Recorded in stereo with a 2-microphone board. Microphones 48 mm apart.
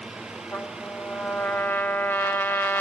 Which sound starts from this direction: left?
A trumpet, at 0.5 s.